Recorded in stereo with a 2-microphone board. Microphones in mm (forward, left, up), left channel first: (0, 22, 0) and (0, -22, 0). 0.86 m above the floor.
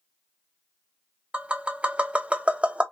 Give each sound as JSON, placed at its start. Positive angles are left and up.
{"t": 1.3, "sound": "tapping", "side_deg": -25, "distance_m": 0.7}